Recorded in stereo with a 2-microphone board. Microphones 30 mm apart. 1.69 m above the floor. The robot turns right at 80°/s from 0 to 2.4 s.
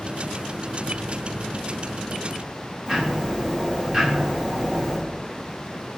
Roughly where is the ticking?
Right.